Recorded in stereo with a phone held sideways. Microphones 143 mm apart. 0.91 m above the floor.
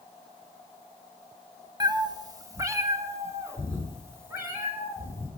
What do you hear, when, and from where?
1.8 s a cat meowing: 30° right (ahead or behind), 0.6 m; by 5.3 s 15° right (ahead or behind), 5 m